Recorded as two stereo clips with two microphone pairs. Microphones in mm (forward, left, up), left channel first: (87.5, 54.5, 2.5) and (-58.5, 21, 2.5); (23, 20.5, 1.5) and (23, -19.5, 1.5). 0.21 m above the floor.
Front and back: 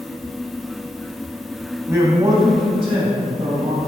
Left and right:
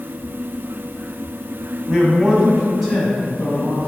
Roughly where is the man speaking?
Behind right.